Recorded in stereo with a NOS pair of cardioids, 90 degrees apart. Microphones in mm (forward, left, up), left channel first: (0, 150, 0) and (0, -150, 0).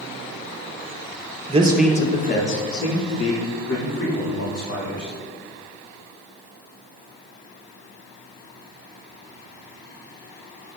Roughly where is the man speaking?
Ahead right.